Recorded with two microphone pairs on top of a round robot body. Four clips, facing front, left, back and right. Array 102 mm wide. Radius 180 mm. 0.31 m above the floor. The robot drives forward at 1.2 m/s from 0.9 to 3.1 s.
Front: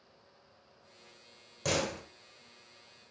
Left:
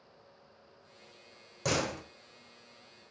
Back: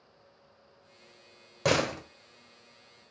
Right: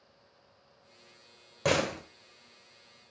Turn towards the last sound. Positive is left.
turn(degrees=-165)